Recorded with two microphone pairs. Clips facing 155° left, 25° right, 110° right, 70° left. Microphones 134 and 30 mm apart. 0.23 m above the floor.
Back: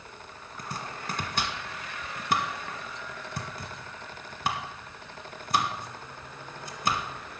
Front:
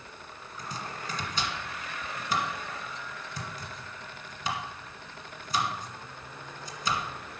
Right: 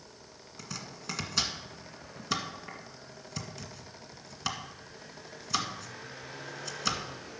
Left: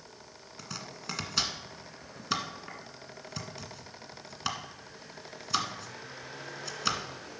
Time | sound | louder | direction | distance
0.6 | chopping | back 1 dB, even | 150° left | 1.6 m